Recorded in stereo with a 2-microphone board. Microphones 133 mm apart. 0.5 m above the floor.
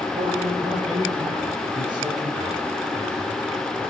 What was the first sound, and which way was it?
A man speaking, 60° right (ahead or behind).